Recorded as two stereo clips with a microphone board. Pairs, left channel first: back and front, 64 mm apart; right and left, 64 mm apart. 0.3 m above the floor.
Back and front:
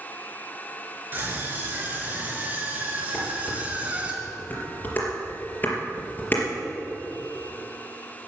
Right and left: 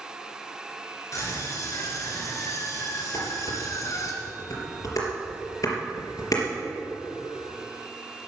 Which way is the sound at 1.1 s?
55° right.